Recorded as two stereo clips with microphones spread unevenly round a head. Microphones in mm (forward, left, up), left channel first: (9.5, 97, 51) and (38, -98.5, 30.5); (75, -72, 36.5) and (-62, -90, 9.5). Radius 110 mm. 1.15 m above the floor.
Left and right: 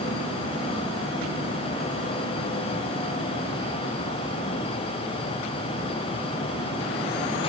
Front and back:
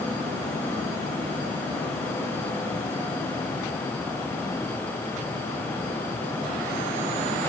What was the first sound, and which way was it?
Only background noise.